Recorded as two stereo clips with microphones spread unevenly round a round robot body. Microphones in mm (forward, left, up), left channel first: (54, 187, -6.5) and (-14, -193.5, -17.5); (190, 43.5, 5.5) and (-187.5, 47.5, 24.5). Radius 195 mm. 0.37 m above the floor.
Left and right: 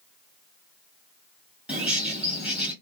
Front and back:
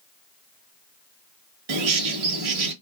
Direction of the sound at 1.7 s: 175° left.